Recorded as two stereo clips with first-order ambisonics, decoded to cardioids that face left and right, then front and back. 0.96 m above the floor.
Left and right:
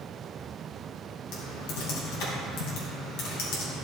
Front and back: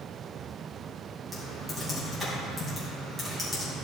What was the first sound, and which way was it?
Typing on a keyboard, 95° left.